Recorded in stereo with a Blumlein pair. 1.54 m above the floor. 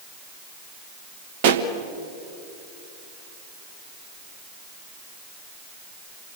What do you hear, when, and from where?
1.4 s a pop: 50° right, 1.3 m